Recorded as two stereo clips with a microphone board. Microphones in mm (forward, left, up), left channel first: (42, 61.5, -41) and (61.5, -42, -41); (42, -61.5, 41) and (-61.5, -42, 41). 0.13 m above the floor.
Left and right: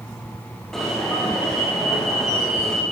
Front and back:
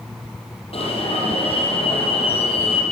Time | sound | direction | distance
0.7 | an alarm | 15° left | 7.5 m